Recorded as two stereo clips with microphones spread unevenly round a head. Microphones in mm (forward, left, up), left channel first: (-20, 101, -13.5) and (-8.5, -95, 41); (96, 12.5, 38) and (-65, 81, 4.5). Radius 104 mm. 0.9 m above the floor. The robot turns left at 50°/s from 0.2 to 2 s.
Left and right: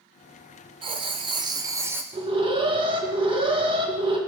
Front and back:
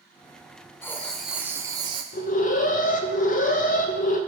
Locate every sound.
0.8 s writing: 80° right, 0.6 m; by 2.0 s 140° right, 0.6 m
2.1 s an alarm: 15° right, 1.1 m